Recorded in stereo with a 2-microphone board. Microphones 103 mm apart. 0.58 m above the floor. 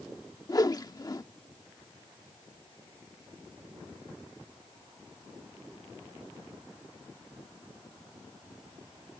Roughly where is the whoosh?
Left.